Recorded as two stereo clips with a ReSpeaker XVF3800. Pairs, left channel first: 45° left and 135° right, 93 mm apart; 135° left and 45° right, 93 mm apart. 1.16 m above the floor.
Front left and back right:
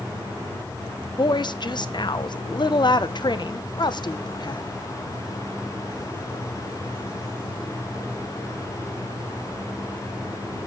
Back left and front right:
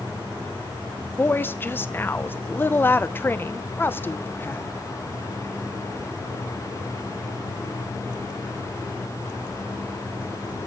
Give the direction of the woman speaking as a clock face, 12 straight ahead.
10 o'clock.